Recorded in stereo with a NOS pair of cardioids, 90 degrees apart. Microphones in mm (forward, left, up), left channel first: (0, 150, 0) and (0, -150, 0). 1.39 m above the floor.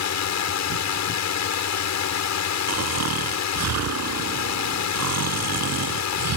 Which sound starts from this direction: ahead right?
Snoring, at 2.7 s.